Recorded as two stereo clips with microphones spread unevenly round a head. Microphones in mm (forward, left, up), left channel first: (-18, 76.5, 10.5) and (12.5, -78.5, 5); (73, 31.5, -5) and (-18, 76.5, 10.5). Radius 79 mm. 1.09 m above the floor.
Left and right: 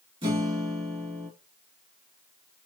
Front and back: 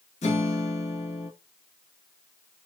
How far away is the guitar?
About 1.9 m.